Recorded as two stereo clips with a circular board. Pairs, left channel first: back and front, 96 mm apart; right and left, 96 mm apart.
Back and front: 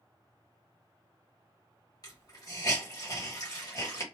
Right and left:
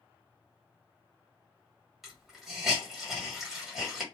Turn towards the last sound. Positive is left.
turn(degrees=175)